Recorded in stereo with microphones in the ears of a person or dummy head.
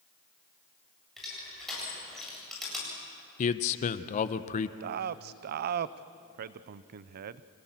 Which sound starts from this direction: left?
A man speaking, at 3.4 s.